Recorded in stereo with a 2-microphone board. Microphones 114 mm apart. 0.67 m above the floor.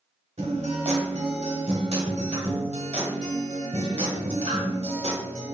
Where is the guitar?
70° right (ahead or behind), 1.0 m.